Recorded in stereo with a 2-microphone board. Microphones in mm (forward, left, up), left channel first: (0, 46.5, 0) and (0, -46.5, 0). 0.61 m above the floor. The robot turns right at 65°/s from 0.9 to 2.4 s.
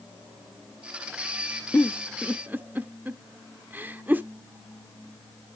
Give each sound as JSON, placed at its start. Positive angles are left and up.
{"t": 1.7, "sound": "a giggle", "side_deg": 20, "distance_m": 0.6}